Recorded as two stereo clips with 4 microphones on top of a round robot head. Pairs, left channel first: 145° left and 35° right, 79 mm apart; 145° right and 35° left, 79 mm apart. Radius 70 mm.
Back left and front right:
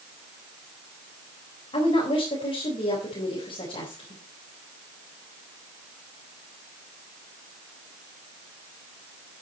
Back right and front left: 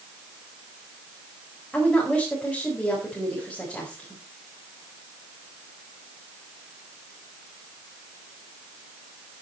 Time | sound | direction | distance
1.7 | a woman speaking | 135° left | 4.5 m